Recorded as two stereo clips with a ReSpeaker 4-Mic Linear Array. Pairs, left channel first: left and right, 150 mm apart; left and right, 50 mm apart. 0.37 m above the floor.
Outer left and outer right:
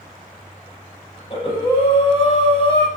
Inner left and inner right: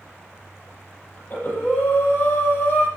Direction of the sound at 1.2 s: 35° left (ahead or behind).